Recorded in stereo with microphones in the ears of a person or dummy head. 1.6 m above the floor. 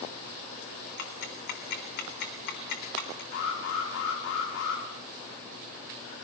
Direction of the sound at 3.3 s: 70° left (ahead or behind).